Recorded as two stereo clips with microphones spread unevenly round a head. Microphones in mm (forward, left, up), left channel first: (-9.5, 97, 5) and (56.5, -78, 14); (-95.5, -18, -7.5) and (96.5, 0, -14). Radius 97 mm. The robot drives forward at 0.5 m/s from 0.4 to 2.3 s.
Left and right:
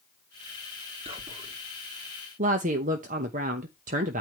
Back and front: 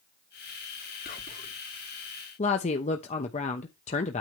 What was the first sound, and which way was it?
Whispering, 130° right.